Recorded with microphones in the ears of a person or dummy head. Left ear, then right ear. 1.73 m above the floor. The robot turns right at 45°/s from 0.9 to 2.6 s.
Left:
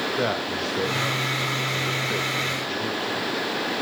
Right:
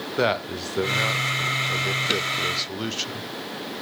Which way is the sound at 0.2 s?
30° right (ahead or behind).